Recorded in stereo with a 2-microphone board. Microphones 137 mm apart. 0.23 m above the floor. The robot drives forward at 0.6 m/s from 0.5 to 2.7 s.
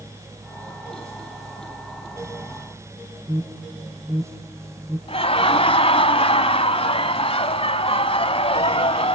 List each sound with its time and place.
3.3 s an alarm: 30° right (ahead or behind), 8.5 m
5.1 s laughter: 45° left (ahead or behind), 1.4 m